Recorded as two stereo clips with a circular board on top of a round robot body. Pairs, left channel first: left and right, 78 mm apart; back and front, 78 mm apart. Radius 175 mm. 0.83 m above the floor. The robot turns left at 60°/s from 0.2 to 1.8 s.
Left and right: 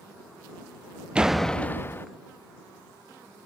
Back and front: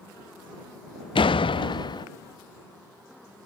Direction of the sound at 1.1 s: 170° right.